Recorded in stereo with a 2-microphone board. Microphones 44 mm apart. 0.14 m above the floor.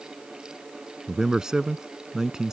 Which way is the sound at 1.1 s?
15° right (ahead or behind).